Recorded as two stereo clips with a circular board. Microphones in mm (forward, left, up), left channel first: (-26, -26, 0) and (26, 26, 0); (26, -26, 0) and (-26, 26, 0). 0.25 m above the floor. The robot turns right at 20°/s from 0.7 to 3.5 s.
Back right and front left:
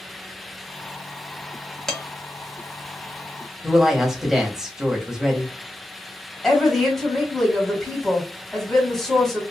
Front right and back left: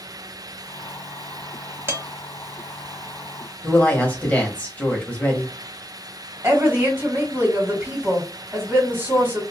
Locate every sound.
1.9 s dishes clattering: 150° left, 0.8 m
3.6 s a woman speaking: 25° right, 1.0 m
6.4 s a woman speaking: 145° left, 1.6 m